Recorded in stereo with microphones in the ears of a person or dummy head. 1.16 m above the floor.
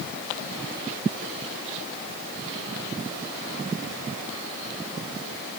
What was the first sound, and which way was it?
Only background noise.